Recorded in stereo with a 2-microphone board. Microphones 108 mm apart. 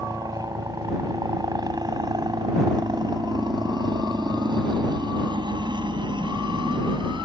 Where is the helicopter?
35° right (ahead or behind); by 7.2 s 45° right (ahead or behind).